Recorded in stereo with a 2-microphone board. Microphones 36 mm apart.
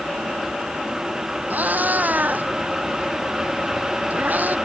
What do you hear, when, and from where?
1.5 s a cat meowing: 50° right (ahead or behind)